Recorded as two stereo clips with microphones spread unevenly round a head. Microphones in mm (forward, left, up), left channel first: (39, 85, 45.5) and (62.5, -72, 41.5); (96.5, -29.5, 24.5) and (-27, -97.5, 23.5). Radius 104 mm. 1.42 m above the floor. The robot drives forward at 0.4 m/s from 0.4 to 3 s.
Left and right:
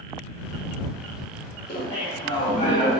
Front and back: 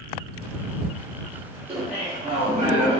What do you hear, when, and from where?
1.7 s laughter: 140° left, 1.3 m; by 3.0 s 155° left, 1.8 m